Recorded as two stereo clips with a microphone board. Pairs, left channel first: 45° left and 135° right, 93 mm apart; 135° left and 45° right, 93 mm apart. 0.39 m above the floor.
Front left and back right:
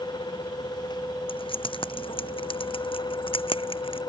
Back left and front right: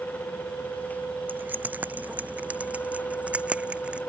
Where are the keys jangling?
25° left; by 4.0 s 30° left.